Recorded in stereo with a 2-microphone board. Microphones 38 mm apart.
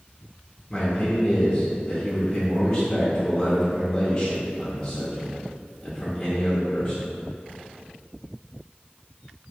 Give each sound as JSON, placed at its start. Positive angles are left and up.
{"t": 0.7, "sound": "a man speaking", "side_deg": 20, "distance_m": 0.8}